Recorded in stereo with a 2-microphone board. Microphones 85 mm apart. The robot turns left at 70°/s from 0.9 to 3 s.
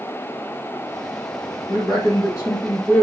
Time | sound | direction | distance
1.7 | a man speaking | 105° left | 2.5 m